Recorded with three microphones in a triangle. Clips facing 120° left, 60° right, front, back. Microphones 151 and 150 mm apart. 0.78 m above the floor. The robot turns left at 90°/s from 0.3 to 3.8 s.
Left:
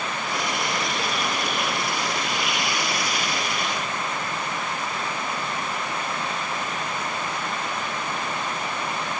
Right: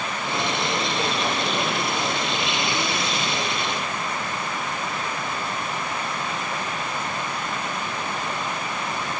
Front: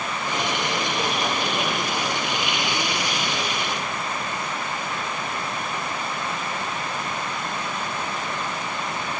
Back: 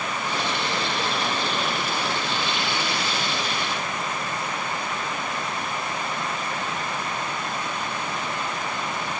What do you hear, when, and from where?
Only background noise.